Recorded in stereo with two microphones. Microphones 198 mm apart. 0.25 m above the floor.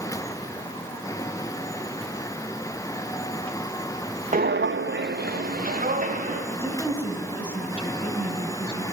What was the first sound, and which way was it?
Footsteps, 45° right (ahead or behind).